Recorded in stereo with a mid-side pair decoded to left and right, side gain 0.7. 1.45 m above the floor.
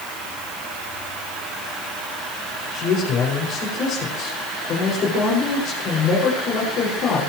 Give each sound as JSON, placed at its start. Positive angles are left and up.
{"t": 2.7, "sound": "a man speaking", "azimuth_deg": 50, "distance_m": 6.0}